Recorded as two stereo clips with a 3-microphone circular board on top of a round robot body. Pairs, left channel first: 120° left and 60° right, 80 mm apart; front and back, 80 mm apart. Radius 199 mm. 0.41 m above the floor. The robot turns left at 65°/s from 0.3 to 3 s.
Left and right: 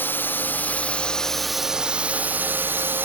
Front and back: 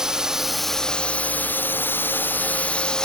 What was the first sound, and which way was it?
A drone, 105° left.